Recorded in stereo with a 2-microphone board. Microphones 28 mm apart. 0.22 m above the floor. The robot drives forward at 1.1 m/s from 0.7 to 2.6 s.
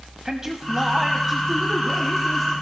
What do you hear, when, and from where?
0.2 s a man speaking: 20° right (ahead or behind), 1.0 m; by 2.5 s 10° right (ahead or behind), 2.5 m